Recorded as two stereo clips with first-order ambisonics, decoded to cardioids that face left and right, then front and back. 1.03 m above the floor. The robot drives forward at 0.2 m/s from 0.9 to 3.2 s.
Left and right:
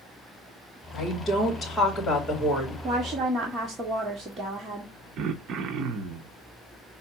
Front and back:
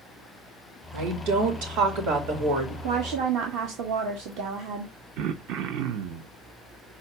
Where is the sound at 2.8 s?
160° right, 1.4 m.